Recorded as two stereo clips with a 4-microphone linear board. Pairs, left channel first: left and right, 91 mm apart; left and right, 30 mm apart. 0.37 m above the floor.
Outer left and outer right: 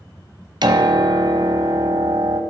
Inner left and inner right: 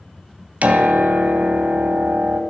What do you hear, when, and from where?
0.6 s a piano: 55° right (ahead or behind), 1.0 m